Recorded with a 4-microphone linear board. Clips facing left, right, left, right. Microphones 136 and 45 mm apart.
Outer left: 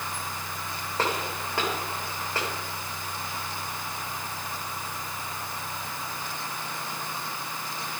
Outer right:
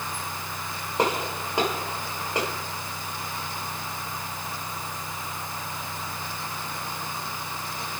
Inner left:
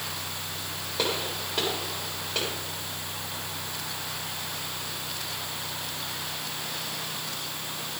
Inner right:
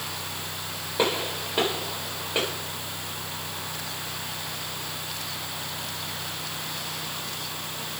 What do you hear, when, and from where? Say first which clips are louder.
1.0 s a gunshot: outer right 4 dB, inner right 4 dB; 20° right (ahead or behind), 8 m